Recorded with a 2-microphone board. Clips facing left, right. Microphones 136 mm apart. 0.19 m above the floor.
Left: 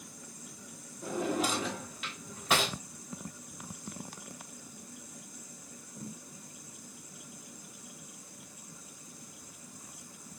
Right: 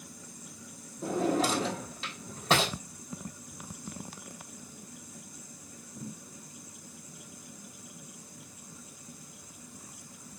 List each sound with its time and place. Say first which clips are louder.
1.0 s a drawer: right 4 dB; 30° right (ahead or behind), 1.7 m